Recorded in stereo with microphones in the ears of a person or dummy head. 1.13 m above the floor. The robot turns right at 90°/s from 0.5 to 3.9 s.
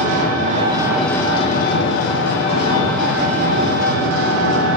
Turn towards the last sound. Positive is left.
turn(degrees=-100)